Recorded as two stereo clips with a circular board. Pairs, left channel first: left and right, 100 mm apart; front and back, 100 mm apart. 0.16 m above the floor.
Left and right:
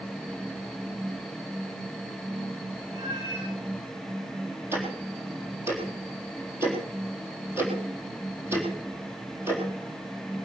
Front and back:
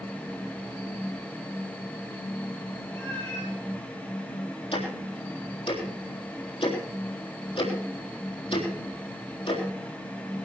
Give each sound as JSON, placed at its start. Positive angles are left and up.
{"t": 2.9, "sound": "a cat meowing", "azimuth_deg": -70, "distance_m": 8.0}
{"t": 4.7, "sound": "ticking", "azimuth_deg": -25, "distance_m": 3.5}